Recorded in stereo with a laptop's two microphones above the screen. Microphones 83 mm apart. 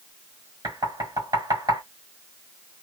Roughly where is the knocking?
Right.